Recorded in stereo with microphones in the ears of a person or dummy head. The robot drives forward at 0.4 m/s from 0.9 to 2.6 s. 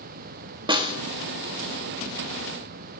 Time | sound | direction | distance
0.7 | a snare drum | 25° right (ahead or behind) | 0.6 m